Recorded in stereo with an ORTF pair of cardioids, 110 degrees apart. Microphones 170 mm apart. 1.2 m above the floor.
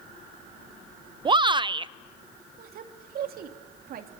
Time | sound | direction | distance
1.2 | a shout | 30° right | 0.8 m
2.6 | a woman speaking | 60° right | 2.5 m